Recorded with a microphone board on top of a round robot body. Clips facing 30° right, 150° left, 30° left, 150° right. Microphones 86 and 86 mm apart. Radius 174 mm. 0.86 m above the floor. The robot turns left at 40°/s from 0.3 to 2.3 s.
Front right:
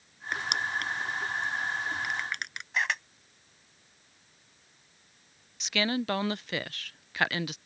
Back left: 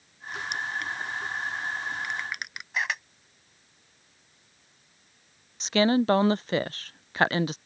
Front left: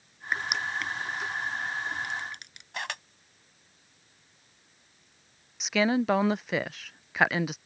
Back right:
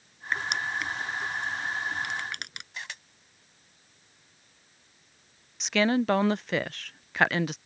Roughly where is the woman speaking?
Behind left.